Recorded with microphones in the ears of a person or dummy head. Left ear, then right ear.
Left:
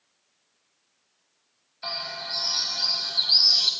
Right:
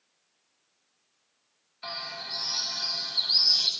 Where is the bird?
5° left (ahead or behind), 1.6 m.